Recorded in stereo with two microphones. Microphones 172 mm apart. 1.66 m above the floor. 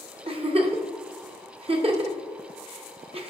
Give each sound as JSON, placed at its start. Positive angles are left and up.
{"t": 0.3, "sound": "a giggle", "side_deg": -35, "distance_m": 0.7}